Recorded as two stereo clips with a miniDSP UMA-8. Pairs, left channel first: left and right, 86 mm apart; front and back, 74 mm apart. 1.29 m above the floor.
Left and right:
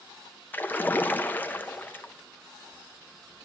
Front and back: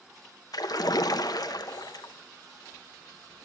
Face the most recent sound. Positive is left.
turn(degrees=25)